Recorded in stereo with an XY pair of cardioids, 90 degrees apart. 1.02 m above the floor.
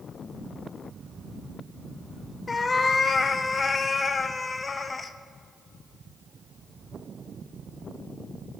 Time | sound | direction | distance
2.5 | a cat meowing | 35° left | 0.6 m